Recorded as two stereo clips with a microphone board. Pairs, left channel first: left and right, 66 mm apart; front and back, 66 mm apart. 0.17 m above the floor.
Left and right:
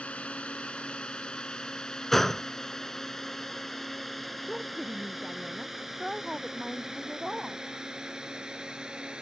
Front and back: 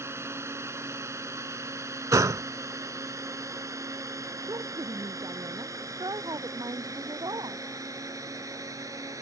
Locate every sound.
0.0 s a drone: 155° left; by 9.2 s 165° right
2.1 s a gunshot: 175° left
4.5 s a woman speaking: straight behind